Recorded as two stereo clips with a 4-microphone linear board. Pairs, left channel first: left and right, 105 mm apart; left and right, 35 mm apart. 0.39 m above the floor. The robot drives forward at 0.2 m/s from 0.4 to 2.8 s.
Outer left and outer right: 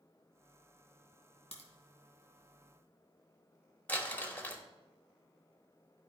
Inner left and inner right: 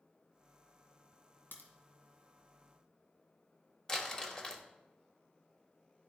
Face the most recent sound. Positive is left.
turn(degrees=15)  # may be behind; listen again after turning